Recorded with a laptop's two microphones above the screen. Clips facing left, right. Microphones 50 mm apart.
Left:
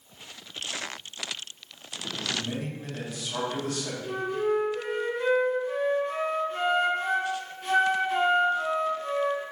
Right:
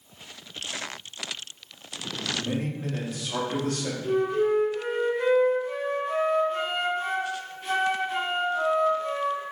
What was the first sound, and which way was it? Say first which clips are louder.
A man speaking: right 5 dB; 50° right (ahead or behind).